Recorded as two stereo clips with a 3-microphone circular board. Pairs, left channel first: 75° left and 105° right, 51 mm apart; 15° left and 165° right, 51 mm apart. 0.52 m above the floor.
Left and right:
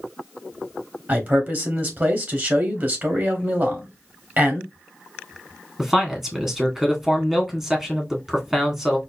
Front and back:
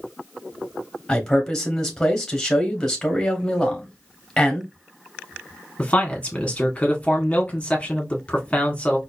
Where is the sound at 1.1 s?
65° right, 1.4 m.